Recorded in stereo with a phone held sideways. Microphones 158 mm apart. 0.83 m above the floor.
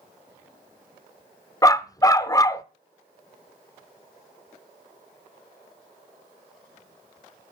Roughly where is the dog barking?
Left.